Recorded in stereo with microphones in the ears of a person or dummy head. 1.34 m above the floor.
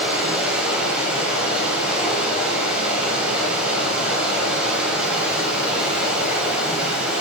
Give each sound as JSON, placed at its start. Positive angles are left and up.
{"t": 0.0, "sound": "running water", "side_deg": -5, "distance_m": 7.0}